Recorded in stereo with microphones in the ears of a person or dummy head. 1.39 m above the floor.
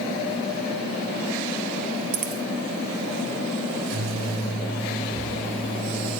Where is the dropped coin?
45° right (ahead or behind), 2.5 m.